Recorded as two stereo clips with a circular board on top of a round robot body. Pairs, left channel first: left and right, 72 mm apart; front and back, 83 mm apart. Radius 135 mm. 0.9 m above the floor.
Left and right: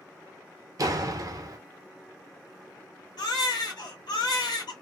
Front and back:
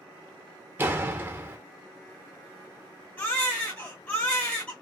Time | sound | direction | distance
0.8 | a door slam | 115° right | 0.8 m
3.2 | a baby crying | 70° left | 1.1 m